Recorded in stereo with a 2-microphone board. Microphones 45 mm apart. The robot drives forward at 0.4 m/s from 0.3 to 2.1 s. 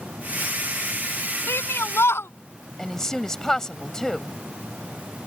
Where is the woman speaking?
15° left (ahead or behind).